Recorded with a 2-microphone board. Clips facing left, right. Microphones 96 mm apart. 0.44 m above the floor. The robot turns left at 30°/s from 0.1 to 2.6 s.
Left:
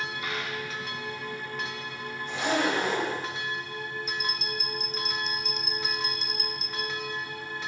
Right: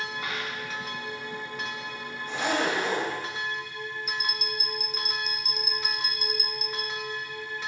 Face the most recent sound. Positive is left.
turn(degrees=-10)  # may be behind; listen again after turning